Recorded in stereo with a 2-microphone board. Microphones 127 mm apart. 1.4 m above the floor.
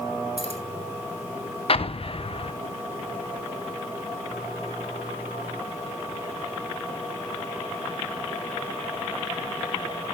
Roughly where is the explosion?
Left.